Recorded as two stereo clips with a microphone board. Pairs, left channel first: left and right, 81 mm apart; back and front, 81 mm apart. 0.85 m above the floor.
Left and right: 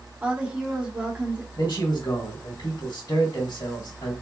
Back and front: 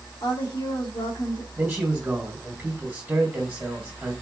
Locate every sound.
0.2 s a woman speaking: 165° right, 1.7 m
1.6 s a man speaking: 65° left, 2 m